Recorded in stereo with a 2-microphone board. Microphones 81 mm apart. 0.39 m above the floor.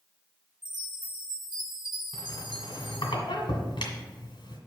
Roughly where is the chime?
Right.